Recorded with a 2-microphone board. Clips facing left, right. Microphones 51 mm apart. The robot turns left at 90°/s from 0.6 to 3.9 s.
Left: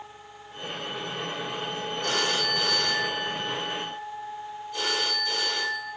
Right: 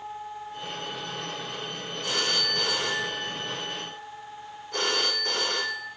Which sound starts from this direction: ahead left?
A phone ringing, at 2.0 s.